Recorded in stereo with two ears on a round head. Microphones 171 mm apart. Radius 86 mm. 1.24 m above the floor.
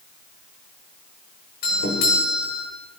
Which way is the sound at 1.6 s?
55° left (ahead or behind).